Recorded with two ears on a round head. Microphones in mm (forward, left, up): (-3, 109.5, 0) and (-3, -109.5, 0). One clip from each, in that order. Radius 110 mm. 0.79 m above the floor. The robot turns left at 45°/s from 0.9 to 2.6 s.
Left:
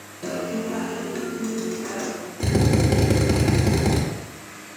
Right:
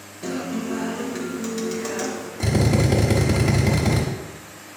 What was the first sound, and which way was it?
A guitar, 10° left.